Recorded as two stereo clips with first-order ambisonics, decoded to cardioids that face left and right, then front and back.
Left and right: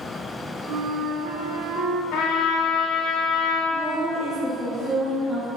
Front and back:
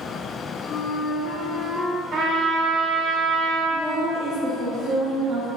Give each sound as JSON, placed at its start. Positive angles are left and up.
{"t": 0.7, "sound": "a flute", "azimuth_deg": -70, "distance_m": 0.5}
{"t": 2.1, "sound": "a trumpet", "azimuth_deg": 125, "distance_m": 0.9}
{"t": 3.7, "sound": "a woman speaking", "azimuth_deg": -150, "distance_m": 0.6}